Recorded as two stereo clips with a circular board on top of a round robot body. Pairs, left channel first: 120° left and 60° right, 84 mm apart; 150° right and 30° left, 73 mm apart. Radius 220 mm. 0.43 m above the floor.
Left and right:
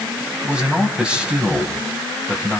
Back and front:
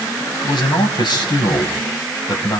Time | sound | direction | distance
0.4 | a man speaking | 140° right | 5 m